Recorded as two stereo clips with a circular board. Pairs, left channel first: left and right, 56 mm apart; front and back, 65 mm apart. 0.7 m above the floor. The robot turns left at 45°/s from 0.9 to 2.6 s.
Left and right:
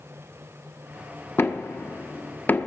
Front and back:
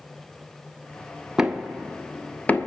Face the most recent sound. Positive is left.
turn(degrees=50)